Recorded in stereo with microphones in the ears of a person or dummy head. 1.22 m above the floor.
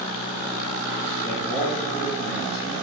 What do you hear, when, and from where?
1.2 s a man speaking: 20° left (ahead or behind), 1.7 m